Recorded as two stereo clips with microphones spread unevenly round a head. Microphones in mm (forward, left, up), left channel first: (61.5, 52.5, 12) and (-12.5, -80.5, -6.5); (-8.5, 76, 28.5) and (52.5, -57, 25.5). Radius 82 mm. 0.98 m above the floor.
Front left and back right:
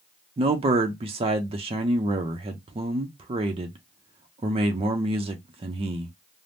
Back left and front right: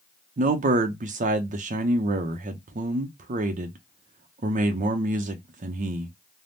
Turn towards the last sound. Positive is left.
turn(degrees=-80)